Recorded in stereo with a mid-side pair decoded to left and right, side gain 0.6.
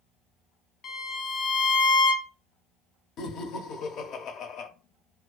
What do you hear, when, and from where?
0.8 s a violin: 45° left, 0.5 m
3.2 s laughter: 55° left, 0.7 m